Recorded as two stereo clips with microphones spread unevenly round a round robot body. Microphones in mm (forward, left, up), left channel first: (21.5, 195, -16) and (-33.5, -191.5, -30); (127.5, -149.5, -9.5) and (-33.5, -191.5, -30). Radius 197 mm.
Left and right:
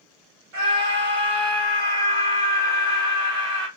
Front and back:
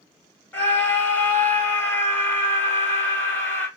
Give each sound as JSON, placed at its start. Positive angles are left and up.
{"t": 0.5, "sound": "a scream", "azimuth_deg": -65, "distance_m": 3.5}